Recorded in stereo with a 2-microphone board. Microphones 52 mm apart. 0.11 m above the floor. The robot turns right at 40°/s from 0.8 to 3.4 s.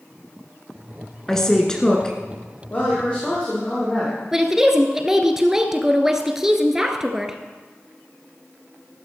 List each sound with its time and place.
1.3 s a woman speaking: 10° left (ahead or behind), 1.6 m; by 2.2 s 15° left (ahead or behind), 1.6 m
2.7 s a woman speaking: 40° left (ahead or behind), 4.5 m; by 4.2 s 15° left (ahead or behind), 4.5 m
4.3 s a woman speaking: 10° right (ahead or behind), 1.4 m